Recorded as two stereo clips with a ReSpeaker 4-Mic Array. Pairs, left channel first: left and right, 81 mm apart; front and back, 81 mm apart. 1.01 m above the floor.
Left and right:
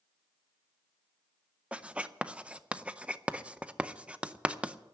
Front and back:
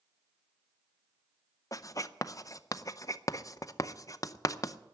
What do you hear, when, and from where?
1.7 s writing: 20° right, 0.5 m